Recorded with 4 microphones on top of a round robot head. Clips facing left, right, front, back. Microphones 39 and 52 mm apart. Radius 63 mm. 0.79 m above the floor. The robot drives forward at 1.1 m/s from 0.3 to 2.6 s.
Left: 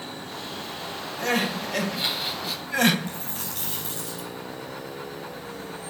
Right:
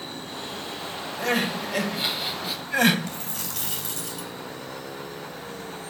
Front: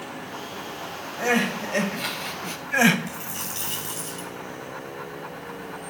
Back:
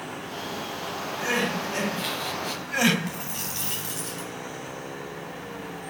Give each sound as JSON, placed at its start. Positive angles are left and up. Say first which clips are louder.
{"t": 1.2, "sound": "crying", "louder": "even, front 4 dB", "azimuth_deg": 0, "distance_m": 2.0}
{"t": 3.1, "sound": "a dropped coin", "louder": "even, even", "azimuth_deg": -120, "distance_m": 0.7}